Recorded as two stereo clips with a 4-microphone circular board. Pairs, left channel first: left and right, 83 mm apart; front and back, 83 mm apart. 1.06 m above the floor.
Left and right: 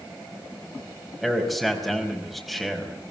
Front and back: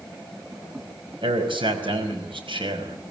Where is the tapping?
I don't hear tapping.